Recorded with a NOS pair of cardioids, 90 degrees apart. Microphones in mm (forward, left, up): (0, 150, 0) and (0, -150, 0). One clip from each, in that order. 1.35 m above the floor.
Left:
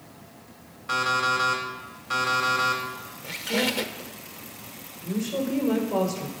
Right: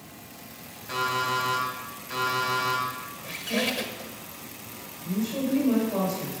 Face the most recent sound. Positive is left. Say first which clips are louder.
# left 1 dB
turn(degrees=65)